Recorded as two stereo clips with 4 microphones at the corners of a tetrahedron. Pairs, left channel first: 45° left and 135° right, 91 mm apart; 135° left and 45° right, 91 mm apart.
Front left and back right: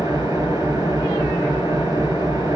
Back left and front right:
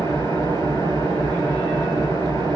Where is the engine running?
175° right, 5 m.